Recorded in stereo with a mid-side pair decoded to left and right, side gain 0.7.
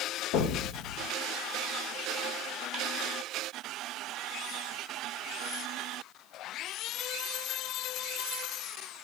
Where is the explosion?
65° left, 1.9 m.